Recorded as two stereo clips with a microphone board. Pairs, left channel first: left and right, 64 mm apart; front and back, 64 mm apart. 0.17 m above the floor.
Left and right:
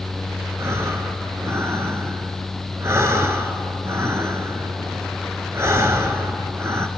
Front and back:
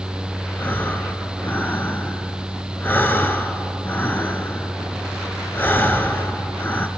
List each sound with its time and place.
0.6 s breathing: 55° right, 0.7 m